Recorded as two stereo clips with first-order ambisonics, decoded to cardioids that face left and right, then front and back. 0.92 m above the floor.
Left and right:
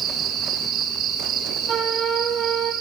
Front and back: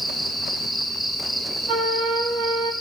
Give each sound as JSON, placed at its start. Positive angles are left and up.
{"t": 0.0, "sound": "an insect", "azimuth_deg": -90, "distance_m": 2.0}
{"t": 1.7, "sound": "a flute", "azimuth_deg": -155, "distance_m": 3.0}